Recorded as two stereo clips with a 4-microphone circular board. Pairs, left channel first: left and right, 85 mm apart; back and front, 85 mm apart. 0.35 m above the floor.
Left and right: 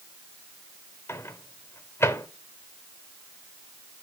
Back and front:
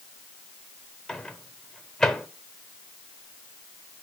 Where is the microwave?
100° left, 0.7 m.